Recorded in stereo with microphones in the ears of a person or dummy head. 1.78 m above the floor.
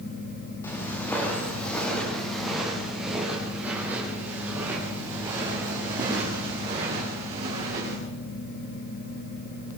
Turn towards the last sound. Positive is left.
turn(degrees=-30)  # may be behind; listen again after turning